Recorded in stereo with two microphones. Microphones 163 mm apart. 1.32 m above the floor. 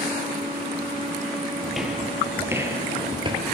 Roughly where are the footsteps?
Centre.